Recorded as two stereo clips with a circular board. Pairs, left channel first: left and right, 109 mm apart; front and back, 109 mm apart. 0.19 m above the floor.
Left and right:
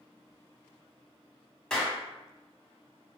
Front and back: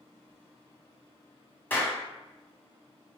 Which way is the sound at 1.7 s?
20° left.